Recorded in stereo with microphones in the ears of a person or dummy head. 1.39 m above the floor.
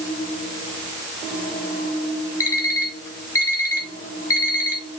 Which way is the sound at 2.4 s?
20° left (ahead or behind).